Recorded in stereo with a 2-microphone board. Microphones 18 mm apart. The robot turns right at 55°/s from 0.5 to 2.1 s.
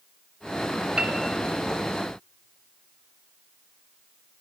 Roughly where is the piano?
Right.